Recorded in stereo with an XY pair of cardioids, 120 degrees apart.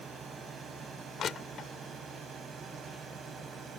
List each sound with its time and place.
0.0 s a drone: 45° right
1.2 s crushing: 45° left